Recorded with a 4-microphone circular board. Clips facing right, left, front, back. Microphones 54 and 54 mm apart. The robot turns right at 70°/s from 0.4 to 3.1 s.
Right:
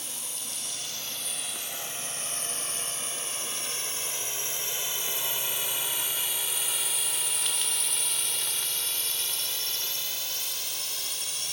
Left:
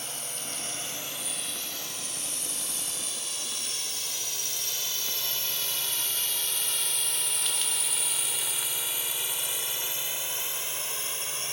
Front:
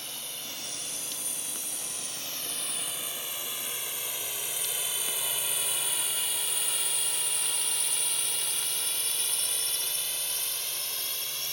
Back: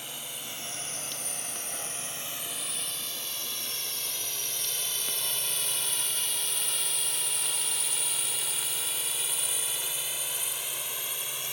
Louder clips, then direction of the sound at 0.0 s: Left 3 dB, back 1 dB; 110° left.